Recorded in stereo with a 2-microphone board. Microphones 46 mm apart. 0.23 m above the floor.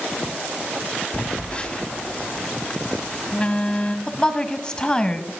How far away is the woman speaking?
About 1.0 m.